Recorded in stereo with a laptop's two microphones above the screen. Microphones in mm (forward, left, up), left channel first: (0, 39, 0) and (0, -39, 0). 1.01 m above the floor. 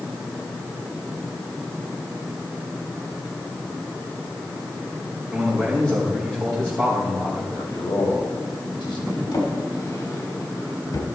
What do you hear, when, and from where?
5.3 s a man speaking: 10° left (ahead or behind), 4.5 m
7.5 s a man speaking: 75° left (ahead or behind), 4 m
9.3 s a drawer: 65° left (ahead or behind), 1.9 m